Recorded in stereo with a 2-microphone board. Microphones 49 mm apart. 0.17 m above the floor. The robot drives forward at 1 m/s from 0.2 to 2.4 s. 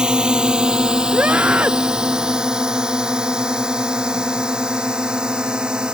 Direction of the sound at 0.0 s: 15° right (ahead or behind).